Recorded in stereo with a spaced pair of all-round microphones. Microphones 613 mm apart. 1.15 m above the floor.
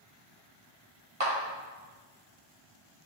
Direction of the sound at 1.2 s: 60° right (ahead or behind).